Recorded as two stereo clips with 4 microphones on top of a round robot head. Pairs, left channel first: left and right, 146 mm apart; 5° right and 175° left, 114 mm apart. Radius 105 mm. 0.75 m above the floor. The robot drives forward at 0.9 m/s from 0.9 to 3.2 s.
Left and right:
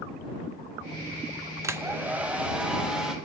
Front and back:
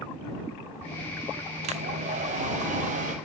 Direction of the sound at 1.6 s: 160° right.